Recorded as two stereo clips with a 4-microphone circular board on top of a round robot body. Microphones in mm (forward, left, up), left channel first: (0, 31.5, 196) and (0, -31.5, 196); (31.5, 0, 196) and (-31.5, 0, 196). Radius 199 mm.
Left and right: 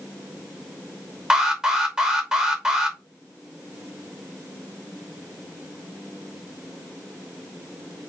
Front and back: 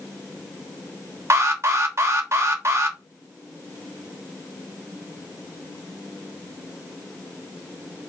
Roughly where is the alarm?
Behind.